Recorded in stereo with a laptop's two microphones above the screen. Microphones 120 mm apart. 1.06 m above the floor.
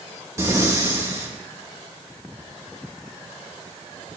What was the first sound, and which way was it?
Breathing, 25° right (ahead or behind).